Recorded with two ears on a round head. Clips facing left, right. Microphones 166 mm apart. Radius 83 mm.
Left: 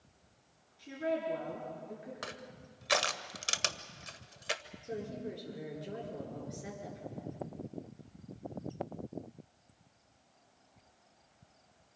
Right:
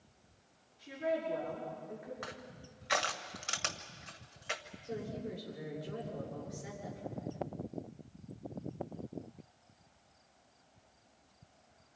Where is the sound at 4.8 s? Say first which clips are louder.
Left 1 dB; 30° left (ahead or behind), 8 m.